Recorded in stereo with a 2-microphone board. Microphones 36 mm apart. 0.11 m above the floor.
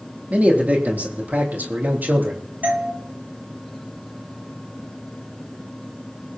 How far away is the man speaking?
About 4 m.